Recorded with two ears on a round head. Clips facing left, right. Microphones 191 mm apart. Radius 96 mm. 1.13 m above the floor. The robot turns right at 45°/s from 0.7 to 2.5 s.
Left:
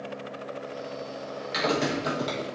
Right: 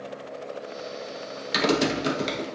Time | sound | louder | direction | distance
1.5 | typing on a keyboard | right 4 dB | 60° right | 1.0 m